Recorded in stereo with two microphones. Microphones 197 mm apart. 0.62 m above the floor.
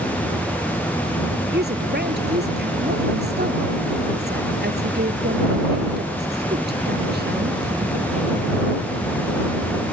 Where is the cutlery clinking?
No cutlery clinking in this recording.